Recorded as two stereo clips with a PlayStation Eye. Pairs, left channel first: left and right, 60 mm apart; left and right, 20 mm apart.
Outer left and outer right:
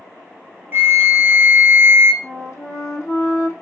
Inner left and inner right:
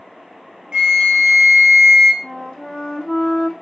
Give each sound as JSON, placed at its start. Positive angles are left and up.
{"t": 0.7, "sound": "a flute", "side_deg": -40, "distance_m": 0.6}
{"t": 2.2, "sound": "a flute", "side_deg": 60, "distance_m": 0.7}